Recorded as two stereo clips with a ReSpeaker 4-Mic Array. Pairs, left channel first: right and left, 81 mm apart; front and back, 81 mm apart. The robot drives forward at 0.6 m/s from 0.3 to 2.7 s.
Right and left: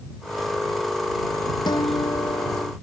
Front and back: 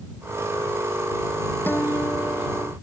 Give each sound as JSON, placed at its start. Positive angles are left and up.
{"t": 1.7, "sound": "a guitar", "azimuth_deg": -65}